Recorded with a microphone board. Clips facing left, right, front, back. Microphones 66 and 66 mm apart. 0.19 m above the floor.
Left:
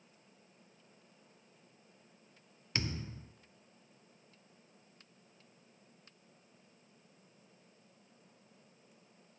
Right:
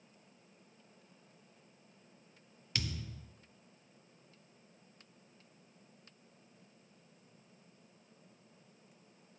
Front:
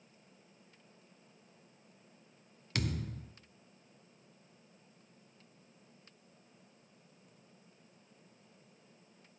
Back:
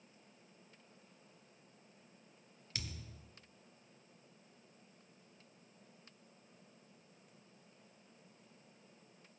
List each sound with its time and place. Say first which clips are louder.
2.8 s a thud: left 2 dB, front 12 dB; 25° left, 0.6 m